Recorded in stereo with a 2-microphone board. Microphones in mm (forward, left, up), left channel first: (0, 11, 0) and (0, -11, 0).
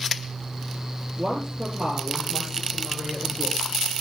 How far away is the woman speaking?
About 8.5 m.